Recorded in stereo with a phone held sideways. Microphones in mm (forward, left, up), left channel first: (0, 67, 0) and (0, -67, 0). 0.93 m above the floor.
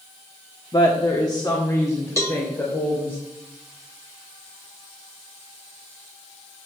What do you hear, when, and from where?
0.7 s a woman speaking: 40° left (ahead or behind), 1.4 m; by 3.2 s 15° left (ahead or behind), 3.5 m
2.2 s a cowbell: 20° left (ahead or behind), 1.7 m